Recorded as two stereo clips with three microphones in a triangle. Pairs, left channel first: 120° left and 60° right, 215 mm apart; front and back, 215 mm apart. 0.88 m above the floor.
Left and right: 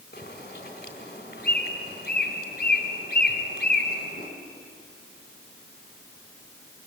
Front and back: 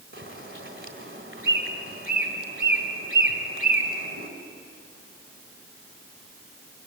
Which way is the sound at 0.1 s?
160° left.